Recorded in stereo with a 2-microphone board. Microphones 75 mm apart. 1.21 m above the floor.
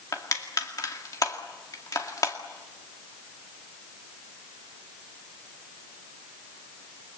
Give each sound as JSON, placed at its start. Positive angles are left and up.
{"t": 0.1, "sound": "crushing", "side_deg": 50, "distance_m": 2.0}